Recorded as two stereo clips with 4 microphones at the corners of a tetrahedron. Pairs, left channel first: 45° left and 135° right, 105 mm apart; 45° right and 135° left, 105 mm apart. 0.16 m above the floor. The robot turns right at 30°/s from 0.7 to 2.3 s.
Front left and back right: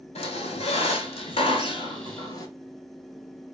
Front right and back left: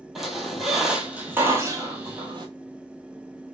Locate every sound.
0.1 s a squeak: 45° left, 0.6 m; by 2.5 s 95° left, 0.6 m